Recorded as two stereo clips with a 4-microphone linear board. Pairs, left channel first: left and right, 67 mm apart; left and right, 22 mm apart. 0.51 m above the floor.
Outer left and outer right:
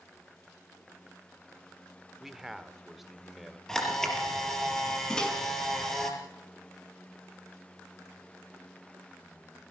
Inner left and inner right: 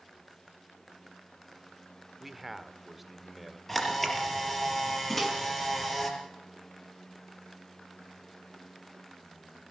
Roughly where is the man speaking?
Centre.